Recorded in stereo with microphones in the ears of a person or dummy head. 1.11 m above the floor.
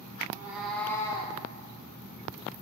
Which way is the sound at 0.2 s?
15° right (ahead or behind).